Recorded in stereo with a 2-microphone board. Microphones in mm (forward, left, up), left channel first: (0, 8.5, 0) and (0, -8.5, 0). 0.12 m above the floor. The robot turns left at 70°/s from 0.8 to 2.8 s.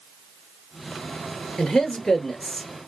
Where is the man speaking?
95° left, 1.7 m; by 2.7 s 15° left, 1.7 m.